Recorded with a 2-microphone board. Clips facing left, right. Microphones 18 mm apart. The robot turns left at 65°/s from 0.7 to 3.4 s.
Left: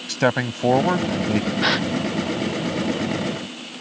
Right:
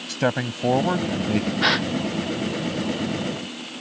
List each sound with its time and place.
0.1 s a man speaking: 50° left; by 1.5 s 5° right
1.6 s a gasp: 10° right (ahead or behind); by 1.9 s 10° left (ahead or behind)